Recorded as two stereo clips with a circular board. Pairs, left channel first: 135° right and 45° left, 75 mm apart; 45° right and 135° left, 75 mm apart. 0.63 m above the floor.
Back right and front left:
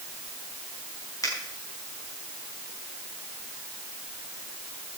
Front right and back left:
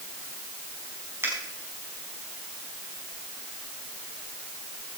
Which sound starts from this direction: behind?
A finger snap, at 1.2 s.